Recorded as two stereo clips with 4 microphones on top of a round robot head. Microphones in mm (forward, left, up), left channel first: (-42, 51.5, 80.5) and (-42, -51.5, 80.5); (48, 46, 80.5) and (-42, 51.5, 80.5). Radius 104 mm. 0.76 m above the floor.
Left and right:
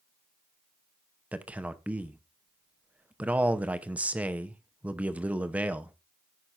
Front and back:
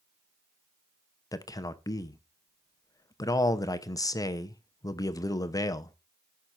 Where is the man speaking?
20° right, 0.8 m.